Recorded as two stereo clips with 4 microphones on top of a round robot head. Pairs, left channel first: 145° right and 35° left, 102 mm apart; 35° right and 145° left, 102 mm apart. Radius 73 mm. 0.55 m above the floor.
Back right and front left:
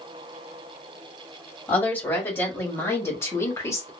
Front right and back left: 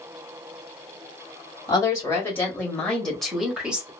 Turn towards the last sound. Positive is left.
turn(degrees=-150)